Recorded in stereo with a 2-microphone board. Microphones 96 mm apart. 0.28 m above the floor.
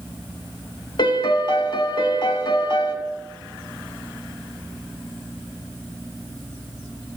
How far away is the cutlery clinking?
No cutlery clinking in this recording.